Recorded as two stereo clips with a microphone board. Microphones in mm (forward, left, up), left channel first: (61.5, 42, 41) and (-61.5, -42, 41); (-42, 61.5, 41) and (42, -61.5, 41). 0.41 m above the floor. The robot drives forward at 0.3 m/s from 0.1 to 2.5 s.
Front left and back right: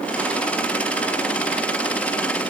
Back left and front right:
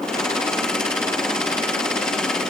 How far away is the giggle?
I don't hear a giggle.